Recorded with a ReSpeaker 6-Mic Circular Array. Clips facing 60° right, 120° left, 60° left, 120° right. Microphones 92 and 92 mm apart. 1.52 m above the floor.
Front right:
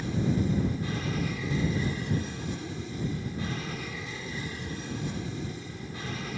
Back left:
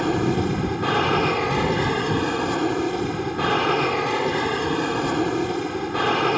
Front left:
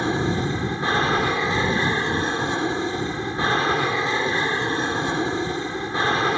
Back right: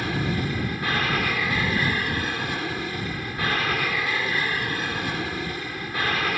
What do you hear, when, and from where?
0.0 s an aircraft: 125° left